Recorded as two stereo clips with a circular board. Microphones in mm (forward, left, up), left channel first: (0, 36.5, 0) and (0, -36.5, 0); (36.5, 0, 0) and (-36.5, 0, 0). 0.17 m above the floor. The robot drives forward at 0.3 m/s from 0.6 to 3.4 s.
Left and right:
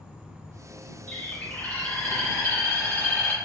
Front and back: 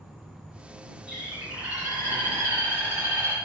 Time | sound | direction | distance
0.0 | an insect | 45° left | 1.1 m
1.1 | a bird | 125° left | 1.6 m